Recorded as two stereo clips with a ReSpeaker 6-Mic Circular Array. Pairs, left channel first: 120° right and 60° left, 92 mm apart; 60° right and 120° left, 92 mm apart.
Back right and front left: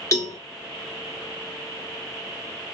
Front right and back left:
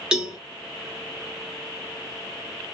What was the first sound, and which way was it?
A cowbell, 160° right.